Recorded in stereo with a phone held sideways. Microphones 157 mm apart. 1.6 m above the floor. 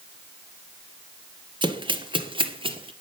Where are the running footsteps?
30° right (ahead or behind), 1.8 m; by 2.9 s 35° right (ahead or behind), 2 m.